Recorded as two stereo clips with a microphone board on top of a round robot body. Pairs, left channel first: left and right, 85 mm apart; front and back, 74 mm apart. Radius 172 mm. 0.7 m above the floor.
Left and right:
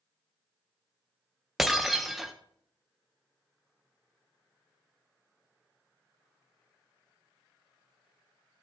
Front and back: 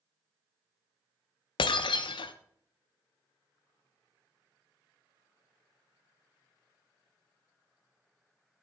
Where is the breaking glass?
Straight ahead, 0.5 m.